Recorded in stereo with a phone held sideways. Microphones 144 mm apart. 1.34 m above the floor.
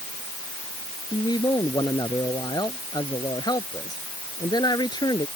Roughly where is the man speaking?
Left.